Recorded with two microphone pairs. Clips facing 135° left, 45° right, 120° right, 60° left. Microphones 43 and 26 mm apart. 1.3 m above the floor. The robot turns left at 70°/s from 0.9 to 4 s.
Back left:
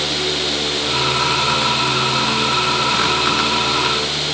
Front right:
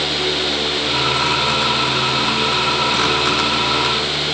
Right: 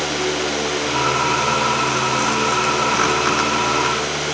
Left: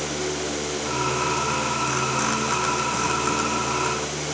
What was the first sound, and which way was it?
Only background noise.